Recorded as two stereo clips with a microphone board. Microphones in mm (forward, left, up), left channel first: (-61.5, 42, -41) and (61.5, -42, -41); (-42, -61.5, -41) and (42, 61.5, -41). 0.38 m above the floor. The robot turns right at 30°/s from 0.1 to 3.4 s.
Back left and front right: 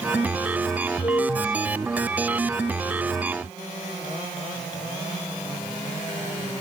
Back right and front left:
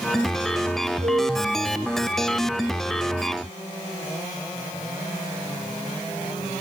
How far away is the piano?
About 3 m.